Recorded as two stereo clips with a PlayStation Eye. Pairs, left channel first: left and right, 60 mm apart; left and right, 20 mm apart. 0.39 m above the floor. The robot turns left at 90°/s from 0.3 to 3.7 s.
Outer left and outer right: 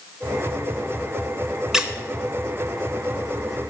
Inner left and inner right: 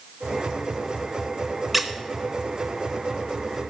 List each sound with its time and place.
1.7 s a squeak: 10° right (ahead or behind), 0.7 m; by 1.9 s 20° right (ahead or behind), 0.7 m